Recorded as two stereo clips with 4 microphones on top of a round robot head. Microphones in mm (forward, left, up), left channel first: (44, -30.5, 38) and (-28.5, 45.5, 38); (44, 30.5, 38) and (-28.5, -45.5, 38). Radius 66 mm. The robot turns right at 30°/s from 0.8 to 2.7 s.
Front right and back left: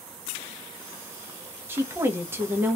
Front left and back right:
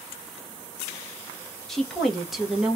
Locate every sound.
1.7 s a woman speaking: 125° left, 0.8 m; by 2.8 s 155° left, 0.8 m